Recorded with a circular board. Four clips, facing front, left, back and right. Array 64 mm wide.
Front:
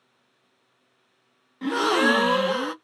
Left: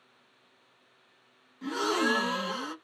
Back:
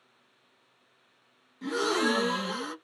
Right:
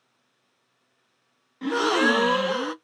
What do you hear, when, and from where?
1.6 s a gasp: 40° right, 0.6 m